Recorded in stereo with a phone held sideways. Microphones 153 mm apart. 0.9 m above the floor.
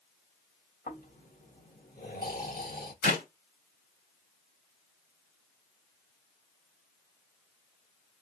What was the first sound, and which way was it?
Snoring, 70° left (ahead or behind).